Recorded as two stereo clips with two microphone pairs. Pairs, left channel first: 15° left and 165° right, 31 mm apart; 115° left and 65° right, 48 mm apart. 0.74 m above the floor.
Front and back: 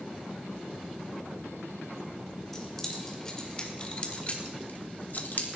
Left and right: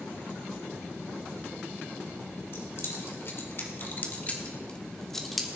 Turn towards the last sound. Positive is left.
turn(degrees=20)